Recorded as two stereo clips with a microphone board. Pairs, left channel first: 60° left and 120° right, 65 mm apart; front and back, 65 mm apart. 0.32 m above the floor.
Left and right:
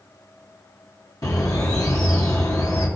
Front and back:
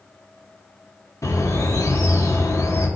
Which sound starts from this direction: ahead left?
A bird, at 1.2 s.